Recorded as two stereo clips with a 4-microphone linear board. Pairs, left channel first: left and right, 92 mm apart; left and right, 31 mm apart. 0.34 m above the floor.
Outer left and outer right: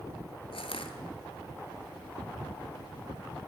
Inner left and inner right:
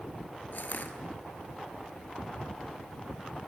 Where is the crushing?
75° left (ahead or behind), 1.7 m.